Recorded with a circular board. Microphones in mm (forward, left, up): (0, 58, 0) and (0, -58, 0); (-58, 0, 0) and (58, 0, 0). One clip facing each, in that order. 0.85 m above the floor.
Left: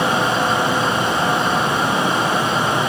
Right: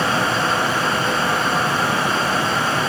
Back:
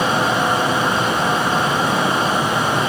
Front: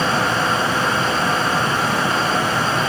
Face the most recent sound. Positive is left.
No sound to turn to.